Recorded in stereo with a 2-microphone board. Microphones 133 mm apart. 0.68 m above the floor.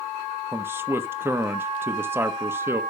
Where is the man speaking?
20° right (ahead or behind), 0.9 m.